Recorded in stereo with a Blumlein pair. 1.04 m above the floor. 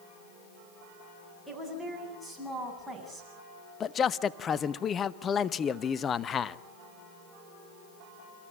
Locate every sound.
1.5 s a woman speaking: 5° right, 8.5 m
3.8 s a man speaking: 25° left, 0.8 m